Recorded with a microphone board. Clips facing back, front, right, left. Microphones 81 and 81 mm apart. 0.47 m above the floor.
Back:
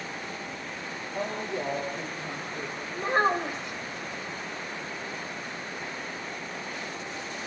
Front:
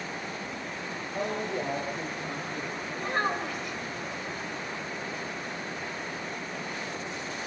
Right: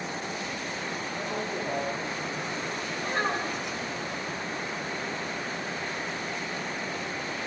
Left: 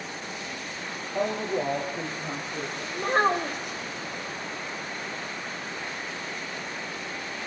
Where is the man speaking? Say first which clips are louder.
Front 1 dB, left 8 dB; 80° left, 8 m.